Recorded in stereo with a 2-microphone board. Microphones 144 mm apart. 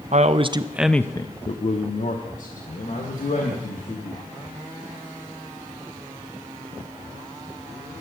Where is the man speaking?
55° right (ahead or behind), 0.7 m; by 4.2 s 75° left (ahead or behind), 2.5 m.